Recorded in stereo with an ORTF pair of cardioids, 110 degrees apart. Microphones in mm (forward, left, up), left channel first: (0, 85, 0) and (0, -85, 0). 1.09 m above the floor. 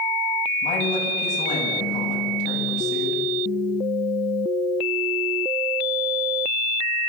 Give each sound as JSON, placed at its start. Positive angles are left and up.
{"t": 0.6, "sound": "a woman speaking", "azimuth_deg": 45, "distance_m": 8.5}